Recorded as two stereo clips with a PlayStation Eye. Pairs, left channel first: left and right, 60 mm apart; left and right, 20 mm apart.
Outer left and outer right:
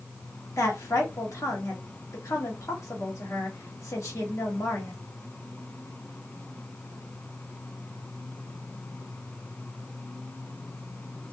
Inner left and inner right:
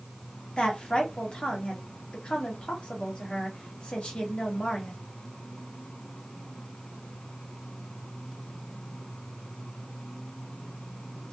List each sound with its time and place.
0.6 s a woman speaking: 55° left (ahead or behind), 1.0 m